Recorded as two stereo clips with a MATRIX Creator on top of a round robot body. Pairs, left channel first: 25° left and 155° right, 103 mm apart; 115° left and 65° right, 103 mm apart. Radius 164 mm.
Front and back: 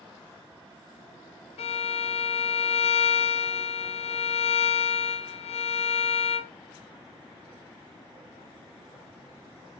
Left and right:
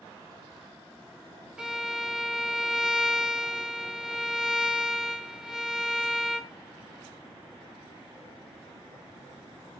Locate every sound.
1.6 s a violin: 15° left, 0.5 m